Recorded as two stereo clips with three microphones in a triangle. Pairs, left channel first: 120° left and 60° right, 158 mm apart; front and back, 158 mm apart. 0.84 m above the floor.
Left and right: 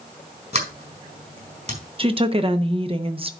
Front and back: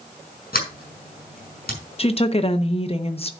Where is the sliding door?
20° right, 4.5 m.